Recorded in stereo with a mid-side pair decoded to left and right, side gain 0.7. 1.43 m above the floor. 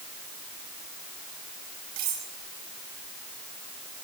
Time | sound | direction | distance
2.0 | cutlery clinking | 70° right | 9 m